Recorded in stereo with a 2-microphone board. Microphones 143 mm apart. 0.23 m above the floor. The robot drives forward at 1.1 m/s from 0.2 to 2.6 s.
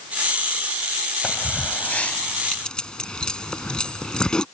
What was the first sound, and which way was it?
Keys jangling, 10° left (ahead or behind).